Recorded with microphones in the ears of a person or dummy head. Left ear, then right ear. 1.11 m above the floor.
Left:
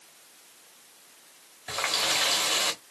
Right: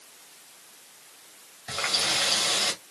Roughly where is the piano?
No piano in this recording.